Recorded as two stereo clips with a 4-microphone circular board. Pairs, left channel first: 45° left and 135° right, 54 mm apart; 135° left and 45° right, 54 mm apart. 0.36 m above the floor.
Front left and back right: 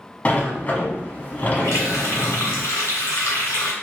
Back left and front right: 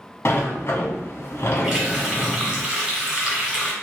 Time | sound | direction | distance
0.2 | a sliding door | 100° left | 0.7 m
1.6 | a running tap | 35° left | 1.6 m